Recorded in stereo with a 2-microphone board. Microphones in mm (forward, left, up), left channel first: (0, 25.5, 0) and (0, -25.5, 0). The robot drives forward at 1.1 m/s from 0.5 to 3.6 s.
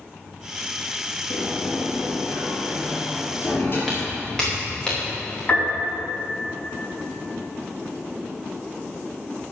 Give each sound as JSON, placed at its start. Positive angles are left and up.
{"t": 1.3, "sound": "a sliding door", "side_deg": 60, "distance_m": 4.0}
{"t": 3.9, "sound": "footsteps", "side_deg": 0, "distance_m": 5.0}
{"t": 5.5, "sound": "a piano", "side_deg": 35, "distance_m": 4.0}